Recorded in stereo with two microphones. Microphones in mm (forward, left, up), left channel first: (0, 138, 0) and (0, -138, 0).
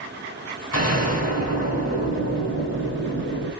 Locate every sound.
0.7 s an explosion: 60° left (ahead or behind), 1.9 m